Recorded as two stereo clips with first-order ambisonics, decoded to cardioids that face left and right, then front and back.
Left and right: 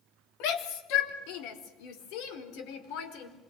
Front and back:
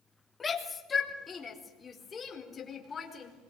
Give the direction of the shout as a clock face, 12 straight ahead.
9 o'clock.